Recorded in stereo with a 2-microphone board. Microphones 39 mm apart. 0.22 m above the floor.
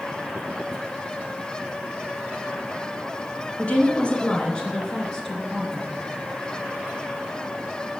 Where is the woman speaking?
35° left (ahead or behind), 2.5 m; by 5.9 s 5° left (ahead or behind), 3.5 m.